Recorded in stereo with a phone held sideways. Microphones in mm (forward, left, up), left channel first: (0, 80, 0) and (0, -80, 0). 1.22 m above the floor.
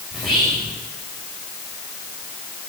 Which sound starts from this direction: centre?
Whispering, at 0.1 s.